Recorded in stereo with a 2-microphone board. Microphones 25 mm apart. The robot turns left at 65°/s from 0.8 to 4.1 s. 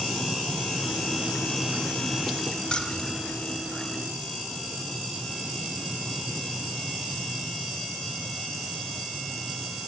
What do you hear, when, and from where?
2.7 s keys jangling: 40° left (ahead or behind), 1.1 m; by 3.2 s 20° left (ahead or behind), 1.1 m